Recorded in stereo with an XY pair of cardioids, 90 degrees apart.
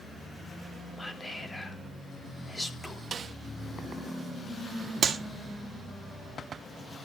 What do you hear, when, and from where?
1.0 s whispering: 20° left, 3 m
3.1 s a snare drum: 50° right, 1.5 m
5.0 s a clap: 50° right, 2 m